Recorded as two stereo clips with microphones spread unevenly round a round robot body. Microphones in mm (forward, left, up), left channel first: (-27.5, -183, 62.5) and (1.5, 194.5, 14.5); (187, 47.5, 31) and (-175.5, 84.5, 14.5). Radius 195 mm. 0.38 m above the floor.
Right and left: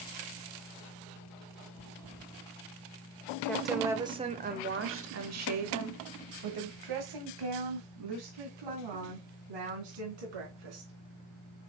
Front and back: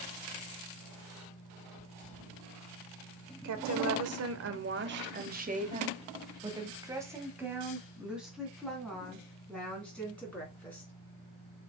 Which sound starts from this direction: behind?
A woman speaking, at 3.4 s.